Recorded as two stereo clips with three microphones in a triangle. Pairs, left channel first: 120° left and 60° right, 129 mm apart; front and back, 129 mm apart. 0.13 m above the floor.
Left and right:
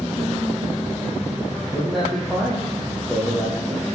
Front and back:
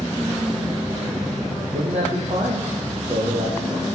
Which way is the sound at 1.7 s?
150° right.